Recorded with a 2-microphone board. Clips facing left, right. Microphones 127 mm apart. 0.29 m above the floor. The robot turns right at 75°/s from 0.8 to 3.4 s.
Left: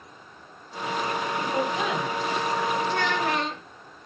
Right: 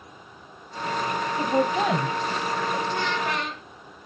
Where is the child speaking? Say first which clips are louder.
Left 1 dB; 100° left, 1.9 m; by 3.6 s 140° left, 1.9 m.